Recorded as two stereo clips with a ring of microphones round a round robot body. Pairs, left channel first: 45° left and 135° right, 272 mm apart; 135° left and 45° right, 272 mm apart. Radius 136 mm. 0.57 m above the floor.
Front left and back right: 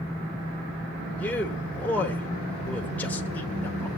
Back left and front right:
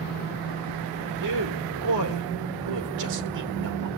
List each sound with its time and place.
1.2 s a man speaking: 40° right, 1.5 m